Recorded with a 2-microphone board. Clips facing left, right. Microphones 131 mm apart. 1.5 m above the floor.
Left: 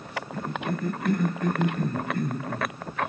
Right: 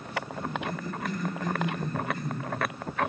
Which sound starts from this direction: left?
A cough, at 0.3 s.